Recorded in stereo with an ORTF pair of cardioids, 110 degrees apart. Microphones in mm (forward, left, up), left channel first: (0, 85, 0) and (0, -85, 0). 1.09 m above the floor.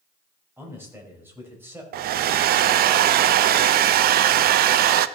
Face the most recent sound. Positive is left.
turn(degrees=-60)